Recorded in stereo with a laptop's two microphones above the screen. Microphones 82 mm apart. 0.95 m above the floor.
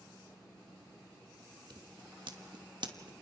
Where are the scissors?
70° right (ahead or behind), 1.3 m.